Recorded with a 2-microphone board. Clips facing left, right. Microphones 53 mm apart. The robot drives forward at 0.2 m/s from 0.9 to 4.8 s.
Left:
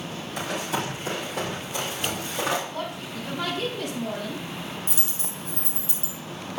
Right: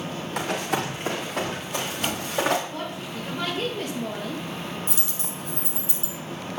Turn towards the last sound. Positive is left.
turn(degrees=0)  # may be behind; listen again after turning